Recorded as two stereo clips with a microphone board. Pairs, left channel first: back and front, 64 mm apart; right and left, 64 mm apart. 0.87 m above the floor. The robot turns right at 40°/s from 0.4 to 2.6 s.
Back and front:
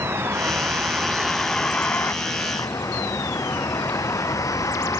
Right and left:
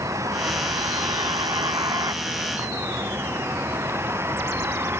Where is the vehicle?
55° left; by 5.0 s 140° left.